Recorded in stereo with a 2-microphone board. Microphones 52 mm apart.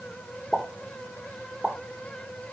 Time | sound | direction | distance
0.5 | a pop | 5° right (ahead or behind) | 1.6 m